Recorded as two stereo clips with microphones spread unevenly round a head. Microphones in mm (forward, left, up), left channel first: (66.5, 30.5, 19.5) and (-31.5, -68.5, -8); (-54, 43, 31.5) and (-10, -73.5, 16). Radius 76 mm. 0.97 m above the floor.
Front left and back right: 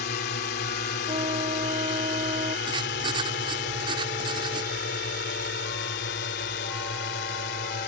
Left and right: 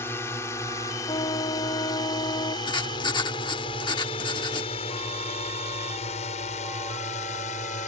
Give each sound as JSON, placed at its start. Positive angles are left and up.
{"t": 0.0, "sound": "a drone", "azimuth_deg": 35}
{"t": 1.1, "sound": "a trumpet", "azimuth_deg": 165}
{"t": 2.7, "sound": "writing", "azimuth_deg": 165}